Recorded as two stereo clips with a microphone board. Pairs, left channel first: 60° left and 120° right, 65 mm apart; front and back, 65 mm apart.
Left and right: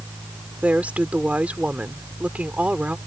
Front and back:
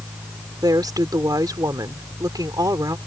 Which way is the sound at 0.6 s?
170° left.